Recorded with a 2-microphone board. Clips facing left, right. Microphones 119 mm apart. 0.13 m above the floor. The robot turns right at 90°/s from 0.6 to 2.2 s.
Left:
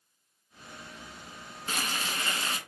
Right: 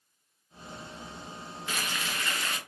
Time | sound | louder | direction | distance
1.7 | frying | left 1 dB | 85° left | 0.7 m